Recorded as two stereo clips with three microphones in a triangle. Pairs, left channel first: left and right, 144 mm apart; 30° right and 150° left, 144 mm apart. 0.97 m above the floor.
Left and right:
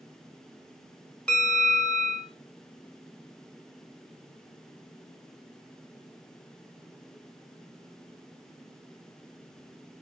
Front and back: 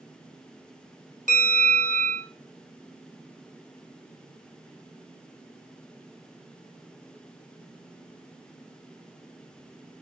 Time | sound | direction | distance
1.3 | a bell | 170° left | 1.2 m